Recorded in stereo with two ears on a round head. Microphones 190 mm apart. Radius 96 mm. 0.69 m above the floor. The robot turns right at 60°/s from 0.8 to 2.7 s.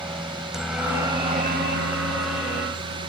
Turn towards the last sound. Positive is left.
turn(degrees=-65)